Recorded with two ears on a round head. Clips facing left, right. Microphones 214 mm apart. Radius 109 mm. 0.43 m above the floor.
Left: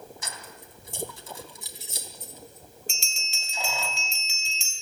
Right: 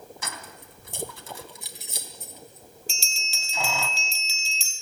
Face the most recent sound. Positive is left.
turn(degrees=-30)  # may be behind; listen again after turning